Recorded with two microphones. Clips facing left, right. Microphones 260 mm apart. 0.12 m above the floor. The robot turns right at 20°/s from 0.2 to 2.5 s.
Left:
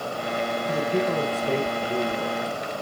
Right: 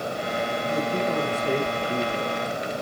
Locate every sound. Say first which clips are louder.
0.7 s a man speaking: left 2 dB; 170° left, 7 m; by 2.4 s 155° right, 7 m